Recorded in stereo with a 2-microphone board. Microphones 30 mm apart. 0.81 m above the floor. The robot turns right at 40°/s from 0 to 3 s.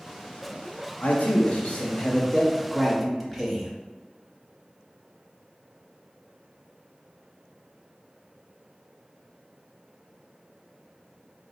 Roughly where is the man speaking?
Left.